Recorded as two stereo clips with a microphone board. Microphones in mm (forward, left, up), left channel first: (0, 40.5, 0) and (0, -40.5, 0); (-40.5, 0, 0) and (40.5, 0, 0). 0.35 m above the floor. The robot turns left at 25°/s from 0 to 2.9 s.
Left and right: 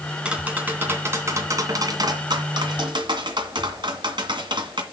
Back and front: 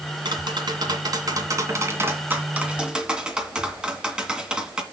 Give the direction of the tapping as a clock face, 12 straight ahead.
12 o'clock.